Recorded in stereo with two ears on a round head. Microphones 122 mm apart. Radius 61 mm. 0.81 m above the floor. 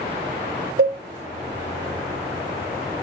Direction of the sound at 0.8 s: 80° right.